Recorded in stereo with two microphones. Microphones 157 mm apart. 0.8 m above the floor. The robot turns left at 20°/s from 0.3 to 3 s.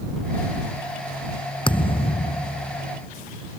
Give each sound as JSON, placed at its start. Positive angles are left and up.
{"t": 1.7, "sound": "a thud", "side_deg": 30}